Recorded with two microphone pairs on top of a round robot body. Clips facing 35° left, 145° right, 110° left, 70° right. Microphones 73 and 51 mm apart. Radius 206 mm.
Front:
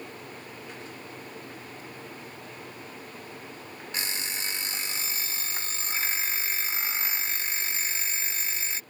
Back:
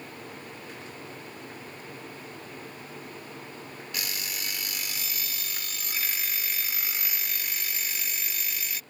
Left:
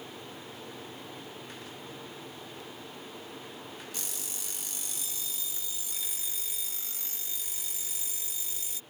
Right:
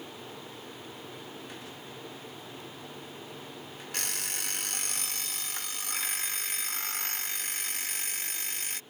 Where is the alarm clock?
30° right.